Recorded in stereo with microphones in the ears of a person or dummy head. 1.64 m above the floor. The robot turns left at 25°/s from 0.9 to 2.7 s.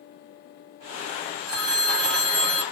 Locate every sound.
1.5 s a phone ringing: 60° right (ahead or behind), 1.7 m; by 2.6 s 40° right (ahead or behind), 1.7 m